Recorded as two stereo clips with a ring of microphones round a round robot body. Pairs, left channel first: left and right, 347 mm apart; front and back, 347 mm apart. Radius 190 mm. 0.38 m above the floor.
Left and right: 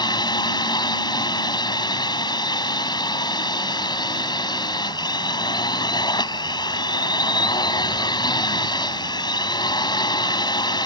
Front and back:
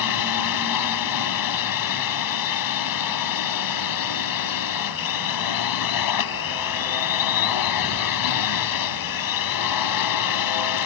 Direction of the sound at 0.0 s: 15° left.